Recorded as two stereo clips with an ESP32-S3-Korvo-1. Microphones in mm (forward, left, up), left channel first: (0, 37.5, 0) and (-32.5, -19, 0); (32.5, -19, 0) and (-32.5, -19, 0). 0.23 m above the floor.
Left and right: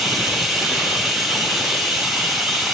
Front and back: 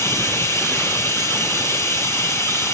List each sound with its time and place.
0.0 s running water: 35° right, 2 m